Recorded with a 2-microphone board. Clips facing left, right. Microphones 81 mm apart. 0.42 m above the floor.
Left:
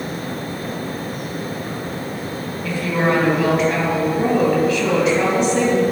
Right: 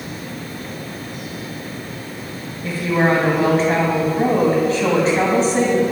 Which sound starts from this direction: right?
A woman speaking, at 2.6 s.